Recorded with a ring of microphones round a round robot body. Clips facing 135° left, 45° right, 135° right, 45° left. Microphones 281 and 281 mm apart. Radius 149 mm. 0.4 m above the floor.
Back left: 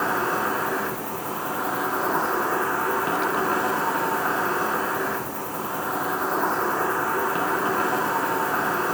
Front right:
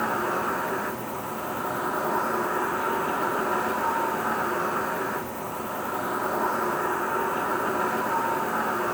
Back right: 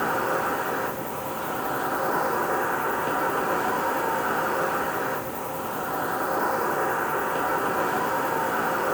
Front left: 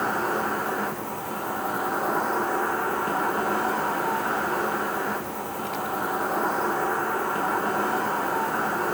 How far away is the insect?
About 1.4 m.